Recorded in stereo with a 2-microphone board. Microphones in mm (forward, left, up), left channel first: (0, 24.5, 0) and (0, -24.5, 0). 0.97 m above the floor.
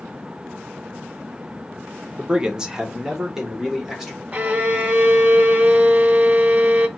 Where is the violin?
30° right (ahead or behind), 0.7 m.